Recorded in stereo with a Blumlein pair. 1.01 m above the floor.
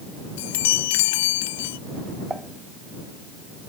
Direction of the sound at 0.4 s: 50° left.